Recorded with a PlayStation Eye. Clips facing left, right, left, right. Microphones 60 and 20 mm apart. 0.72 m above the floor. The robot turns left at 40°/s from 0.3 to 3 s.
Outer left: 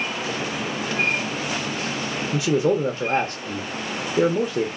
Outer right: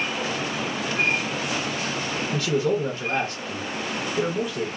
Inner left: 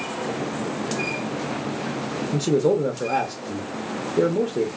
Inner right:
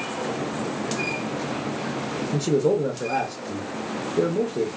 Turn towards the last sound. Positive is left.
turn(degrees=35)  # may be behind; listen again after turning